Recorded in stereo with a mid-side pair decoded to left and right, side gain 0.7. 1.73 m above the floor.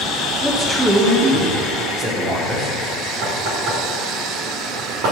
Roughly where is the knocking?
Right.